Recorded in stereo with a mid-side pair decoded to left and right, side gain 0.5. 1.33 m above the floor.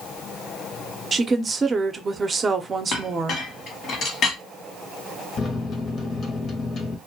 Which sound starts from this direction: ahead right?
A woman speaking, at 1.1 s.